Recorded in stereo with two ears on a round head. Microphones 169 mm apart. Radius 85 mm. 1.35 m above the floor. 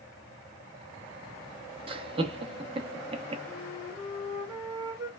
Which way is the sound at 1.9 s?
30° right (ahead or behind).